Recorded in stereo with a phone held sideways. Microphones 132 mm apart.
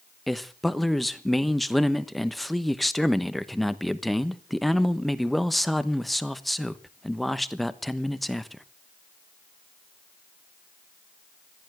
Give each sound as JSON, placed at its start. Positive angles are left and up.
{"t": 0.3, "sound": "a man speaking", "side_deg": 0, "distance_m": 1.0}